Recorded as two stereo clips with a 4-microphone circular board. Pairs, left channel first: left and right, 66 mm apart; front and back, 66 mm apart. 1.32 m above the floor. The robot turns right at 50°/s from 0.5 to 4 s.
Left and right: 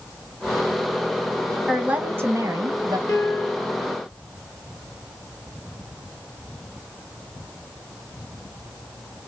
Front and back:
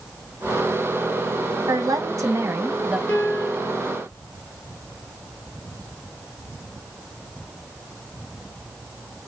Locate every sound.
1.7 s a woman speaking: 170° right, 1.1 m; by 3.0 s 105° right, 1.1 m
3.1 s a piano: 50° left, 1.6 m; by 3.7 s 80° left, 1.6 m